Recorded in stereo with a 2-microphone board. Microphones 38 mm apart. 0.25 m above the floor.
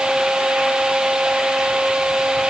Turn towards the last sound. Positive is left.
No sound to turn to.